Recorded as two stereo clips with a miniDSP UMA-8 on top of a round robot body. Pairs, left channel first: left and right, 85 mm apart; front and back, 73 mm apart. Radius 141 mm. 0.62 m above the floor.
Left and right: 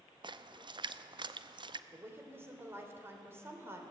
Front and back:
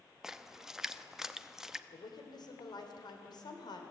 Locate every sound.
0.2 s a splash: 95° right, 0.9 m
1.9 s a woman speaking: 25° right, 3 m